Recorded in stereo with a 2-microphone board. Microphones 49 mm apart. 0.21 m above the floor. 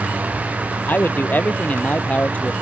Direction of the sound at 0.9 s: 35° left (ahead or behind).